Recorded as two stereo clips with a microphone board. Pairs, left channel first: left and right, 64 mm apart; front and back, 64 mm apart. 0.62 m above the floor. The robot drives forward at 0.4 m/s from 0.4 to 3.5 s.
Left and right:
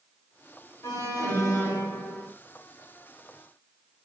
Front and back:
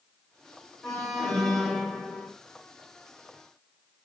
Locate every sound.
0.8 s an alarm: 80° left, 2.5 m; by 2.3 s 95° left, 2.5 m